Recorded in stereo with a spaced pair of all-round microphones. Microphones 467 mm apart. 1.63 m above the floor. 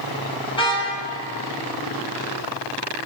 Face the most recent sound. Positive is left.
turn(degrees=10)  # may be behind; listen again after turning